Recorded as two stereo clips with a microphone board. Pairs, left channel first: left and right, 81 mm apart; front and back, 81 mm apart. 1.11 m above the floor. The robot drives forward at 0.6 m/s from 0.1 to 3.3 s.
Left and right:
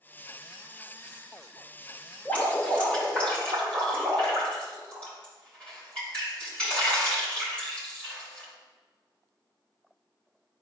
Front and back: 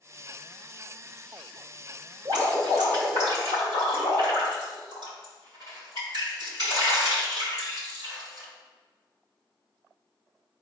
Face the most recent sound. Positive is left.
turn(degrees=165)